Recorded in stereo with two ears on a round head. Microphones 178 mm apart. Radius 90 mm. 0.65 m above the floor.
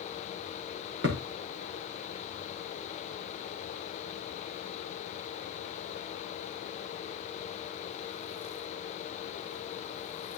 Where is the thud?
65° right (ahead or behind), 5 m.